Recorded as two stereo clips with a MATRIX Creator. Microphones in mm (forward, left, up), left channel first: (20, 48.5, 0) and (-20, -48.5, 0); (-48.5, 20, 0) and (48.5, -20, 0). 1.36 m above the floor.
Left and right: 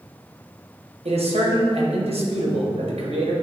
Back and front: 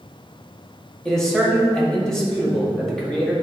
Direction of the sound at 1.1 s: 120° right.